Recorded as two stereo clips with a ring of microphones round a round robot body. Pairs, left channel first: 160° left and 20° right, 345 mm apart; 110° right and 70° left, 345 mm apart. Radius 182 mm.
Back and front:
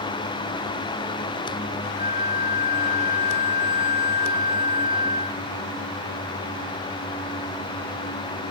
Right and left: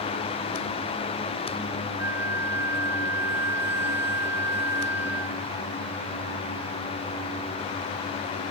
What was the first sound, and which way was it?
A flute, 95° left.